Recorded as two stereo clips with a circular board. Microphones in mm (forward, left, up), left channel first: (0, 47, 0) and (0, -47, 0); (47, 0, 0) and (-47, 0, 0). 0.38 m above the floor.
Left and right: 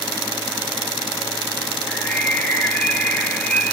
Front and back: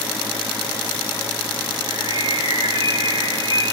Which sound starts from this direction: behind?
A bird, at 1.9 s.